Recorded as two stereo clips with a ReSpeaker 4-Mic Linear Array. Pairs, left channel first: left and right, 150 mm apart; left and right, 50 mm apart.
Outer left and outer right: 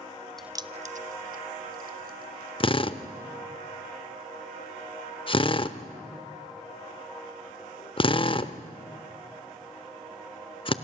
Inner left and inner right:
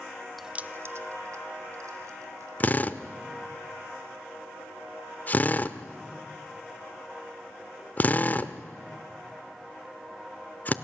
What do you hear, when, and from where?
0.4 s keys jangling: 5° left (ahead or behind), 0.5 m; by 2.5 s 80° right, 3 m
2.6 s a drill: 35° left (ahead or behind), 0.7 m